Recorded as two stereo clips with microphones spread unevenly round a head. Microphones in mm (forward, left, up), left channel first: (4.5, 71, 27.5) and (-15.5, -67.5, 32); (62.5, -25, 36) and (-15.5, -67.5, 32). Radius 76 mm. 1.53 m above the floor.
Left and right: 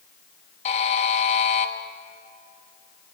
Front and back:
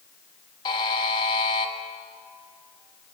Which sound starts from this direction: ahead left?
A buzzer, at 0.7 s.